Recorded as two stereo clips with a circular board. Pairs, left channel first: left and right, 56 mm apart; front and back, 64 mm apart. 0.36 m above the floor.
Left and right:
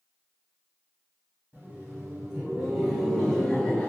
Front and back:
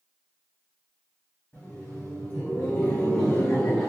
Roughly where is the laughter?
Ahead right.